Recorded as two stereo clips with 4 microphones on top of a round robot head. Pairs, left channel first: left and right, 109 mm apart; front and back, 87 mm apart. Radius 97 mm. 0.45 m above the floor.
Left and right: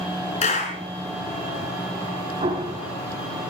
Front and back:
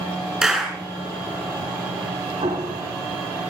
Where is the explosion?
130° right, 4 m.